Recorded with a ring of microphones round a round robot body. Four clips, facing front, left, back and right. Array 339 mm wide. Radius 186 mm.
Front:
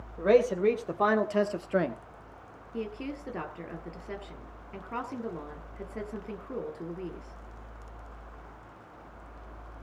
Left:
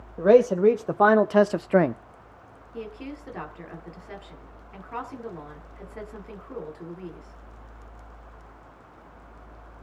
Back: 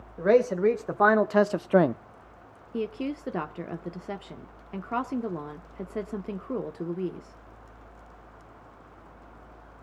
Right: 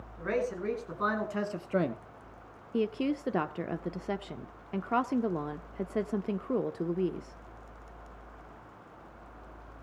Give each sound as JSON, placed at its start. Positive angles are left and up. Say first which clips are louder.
{"t": 0.2, "sound": "a man speaking", "louder": "left 15 dB, back 2 dB", "azimuth_deg": 100, "distance_m": 2.0}
{"t": 2.7, "sound": "a woman speaking", "louder": "right 7 dB, back 5 dB", "azimuth_deg": -120, "distance_m": 1.3}